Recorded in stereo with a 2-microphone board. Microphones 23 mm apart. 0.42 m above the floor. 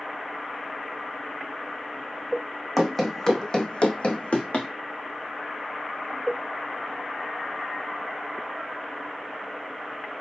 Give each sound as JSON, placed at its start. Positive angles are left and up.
{"t": 2.8, "sound": "running footsteps", "side_deg": 5, "distance_m": 0.9}